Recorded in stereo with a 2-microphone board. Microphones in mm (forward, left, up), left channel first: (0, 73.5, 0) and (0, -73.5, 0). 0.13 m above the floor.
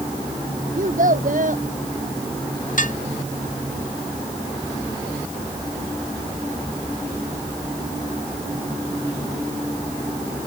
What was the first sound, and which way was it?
A child speaking, 65° right (ahead or behind).